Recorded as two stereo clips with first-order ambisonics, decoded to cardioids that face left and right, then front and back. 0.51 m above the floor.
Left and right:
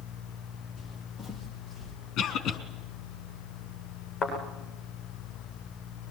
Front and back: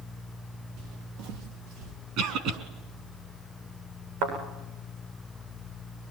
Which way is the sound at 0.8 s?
175° left.